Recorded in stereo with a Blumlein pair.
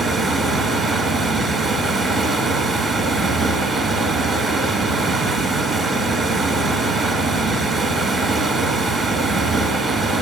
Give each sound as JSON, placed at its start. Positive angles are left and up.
{"t": 0.0, "sound": "running water", "azimuth_deg": -10, "distance_m": 1.4}